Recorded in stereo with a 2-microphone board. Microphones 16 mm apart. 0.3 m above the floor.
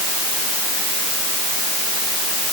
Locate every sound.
Only background noise.